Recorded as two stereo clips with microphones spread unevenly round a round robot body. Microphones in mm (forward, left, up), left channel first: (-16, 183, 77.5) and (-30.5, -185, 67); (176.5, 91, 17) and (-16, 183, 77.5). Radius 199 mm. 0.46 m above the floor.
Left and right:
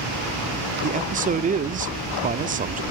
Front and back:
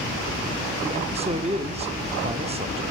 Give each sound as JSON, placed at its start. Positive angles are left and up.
{"t": 0.8, "sound": "a man speaking", "azimuth_deg": -135, "distance_m": 0.9}